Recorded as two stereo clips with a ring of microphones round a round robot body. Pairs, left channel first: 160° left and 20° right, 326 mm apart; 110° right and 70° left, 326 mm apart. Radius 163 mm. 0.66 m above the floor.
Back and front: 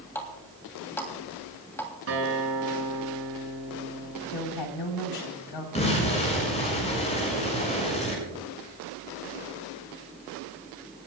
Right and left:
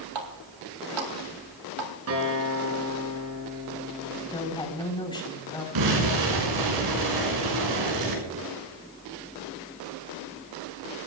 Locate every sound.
0.1 s a running tap: 75° left, 3 m
2.1 s a guitar: 25° left, 6.5 m
4.3 s a woman speaking: 170° left, 3.5 m
5.8 s an explosion: 85° left, 6.5 m